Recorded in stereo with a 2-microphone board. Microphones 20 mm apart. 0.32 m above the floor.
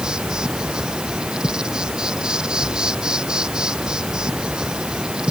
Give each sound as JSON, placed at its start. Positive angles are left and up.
{"t": 0.0, "sound": "an insect", "side_deg": -45}